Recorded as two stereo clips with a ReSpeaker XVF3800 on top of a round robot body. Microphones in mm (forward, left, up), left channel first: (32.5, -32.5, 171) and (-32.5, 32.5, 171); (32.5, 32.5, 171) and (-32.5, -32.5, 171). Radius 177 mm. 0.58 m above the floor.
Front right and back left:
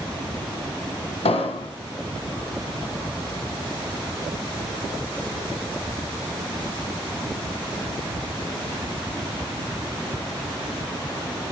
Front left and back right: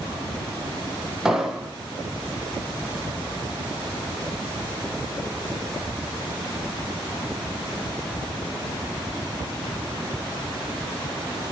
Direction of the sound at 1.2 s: 50° right.